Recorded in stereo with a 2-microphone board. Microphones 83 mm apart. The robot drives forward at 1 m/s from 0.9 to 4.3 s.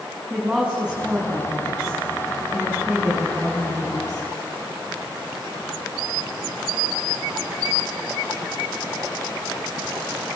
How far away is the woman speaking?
About 5.5 m.